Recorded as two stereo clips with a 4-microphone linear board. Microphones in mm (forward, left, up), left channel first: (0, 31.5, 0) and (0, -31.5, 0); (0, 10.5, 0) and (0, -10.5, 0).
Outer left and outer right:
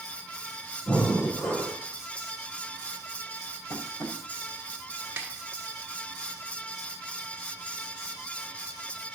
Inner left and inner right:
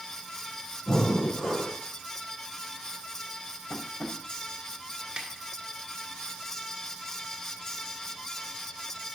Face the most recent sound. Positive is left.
turn(degrees=-35)  # may be behind; listen again after turning